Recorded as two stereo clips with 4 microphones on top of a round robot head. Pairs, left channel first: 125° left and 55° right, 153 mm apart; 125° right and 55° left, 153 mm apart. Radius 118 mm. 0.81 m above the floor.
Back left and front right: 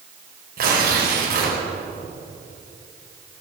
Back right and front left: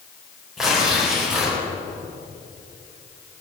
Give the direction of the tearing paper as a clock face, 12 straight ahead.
1 o'clock.